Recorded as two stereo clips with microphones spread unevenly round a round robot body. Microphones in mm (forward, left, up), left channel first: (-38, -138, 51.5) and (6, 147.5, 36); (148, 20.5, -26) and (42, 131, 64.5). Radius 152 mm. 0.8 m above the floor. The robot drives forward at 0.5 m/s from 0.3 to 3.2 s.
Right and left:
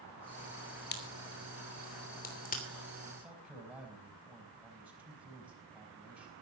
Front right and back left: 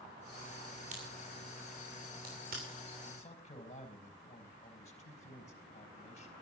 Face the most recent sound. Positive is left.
turn(degrees=-5)